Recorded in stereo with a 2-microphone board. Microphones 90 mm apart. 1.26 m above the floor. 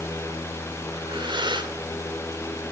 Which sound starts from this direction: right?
Breathing, at 0.9 s.